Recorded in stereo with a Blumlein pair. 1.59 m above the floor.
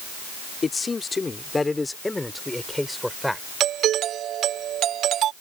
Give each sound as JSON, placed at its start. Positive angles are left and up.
{"t": 0.6, "sound": "a man speaking", "azimuth_deg": 15}
{"t": 3.6, "sound": "a doorbell", "azimuth_deg": -30}